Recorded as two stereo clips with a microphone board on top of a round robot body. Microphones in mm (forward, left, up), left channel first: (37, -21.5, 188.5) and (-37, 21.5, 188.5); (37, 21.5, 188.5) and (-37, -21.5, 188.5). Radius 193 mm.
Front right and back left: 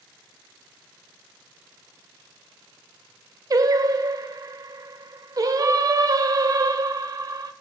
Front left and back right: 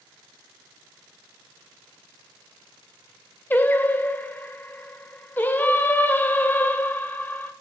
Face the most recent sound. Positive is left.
turn(degrees=100)